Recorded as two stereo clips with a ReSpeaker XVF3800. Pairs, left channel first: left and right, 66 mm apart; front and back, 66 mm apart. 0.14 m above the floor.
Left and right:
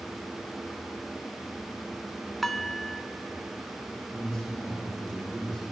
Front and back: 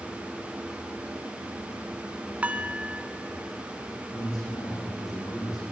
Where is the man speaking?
10° left, 7.5 m.